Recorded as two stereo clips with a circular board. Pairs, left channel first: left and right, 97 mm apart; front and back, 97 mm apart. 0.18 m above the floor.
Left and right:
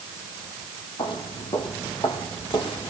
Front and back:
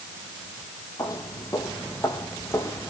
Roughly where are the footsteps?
Ahead left.